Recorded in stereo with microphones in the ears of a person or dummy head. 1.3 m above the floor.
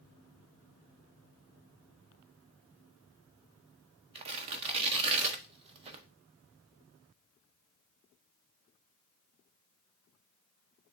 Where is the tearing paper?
25° right (ahead or behind), 0.5 m.